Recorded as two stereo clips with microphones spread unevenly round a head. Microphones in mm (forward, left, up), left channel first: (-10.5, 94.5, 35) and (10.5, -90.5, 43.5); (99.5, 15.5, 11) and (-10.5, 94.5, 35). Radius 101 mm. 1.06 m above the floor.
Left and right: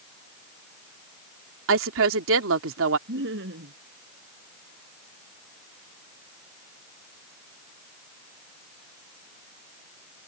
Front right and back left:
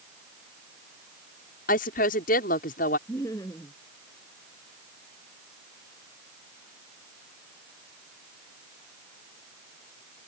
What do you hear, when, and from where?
1.7 s a woman speaking: 70° right
3.1 s laughter: 115° right